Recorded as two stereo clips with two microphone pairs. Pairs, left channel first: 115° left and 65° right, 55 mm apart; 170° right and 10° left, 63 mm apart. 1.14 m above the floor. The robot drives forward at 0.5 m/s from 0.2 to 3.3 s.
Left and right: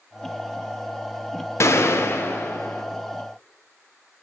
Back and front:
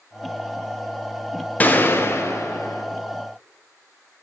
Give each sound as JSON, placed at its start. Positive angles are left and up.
{"t": 1.6, "sound": "a gunshot", "azimuth_deg": 130, "distance_m": 0.6}